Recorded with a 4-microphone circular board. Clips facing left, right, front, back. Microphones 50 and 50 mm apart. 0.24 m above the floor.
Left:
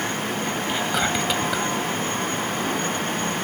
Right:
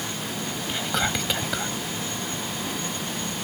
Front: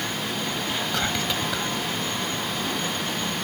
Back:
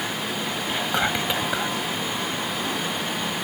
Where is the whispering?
165° left.